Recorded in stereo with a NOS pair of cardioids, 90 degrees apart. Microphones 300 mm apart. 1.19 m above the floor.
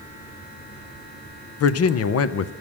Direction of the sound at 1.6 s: 55° left.